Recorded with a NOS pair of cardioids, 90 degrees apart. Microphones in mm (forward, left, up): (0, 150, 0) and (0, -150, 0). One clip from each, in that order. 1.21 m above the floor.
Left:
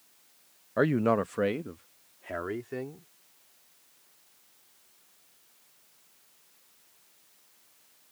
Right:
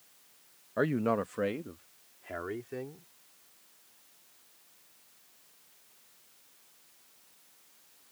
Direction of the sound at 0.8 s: 25° left.